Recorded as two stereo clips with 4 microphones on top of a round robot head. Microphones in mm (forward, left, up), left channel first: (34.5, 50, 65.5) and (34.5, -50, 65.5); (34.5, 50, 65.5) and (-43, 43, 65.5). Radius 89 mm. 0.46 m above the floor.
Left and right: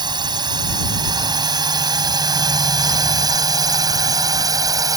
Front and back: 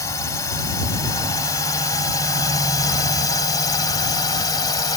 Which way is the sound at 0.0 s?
50° right.